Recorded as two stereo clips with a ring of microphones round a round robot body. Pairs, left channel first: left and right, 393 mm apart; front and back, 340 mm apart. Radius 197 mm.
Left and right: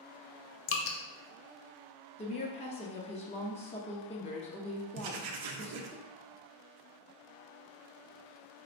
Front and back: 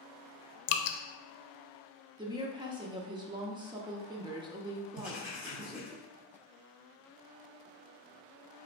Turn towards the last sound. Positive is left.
turn(degrees=-95)